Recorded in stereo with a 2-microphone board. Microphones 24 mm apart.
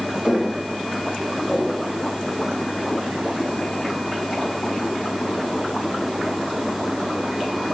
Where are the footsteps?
70° left (ahead or behind), 4.5 m; by 1.9 s 60° left (ahead or behind), 2.5 m.